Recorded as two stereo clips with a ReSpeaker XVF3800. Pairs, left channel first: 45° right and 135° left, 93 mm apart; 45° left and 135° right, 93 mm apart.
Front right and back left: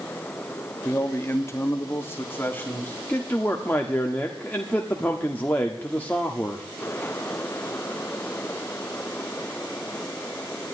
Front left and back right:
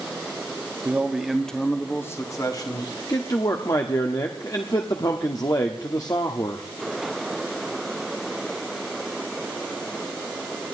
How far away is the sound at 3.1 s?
About 1.2 m.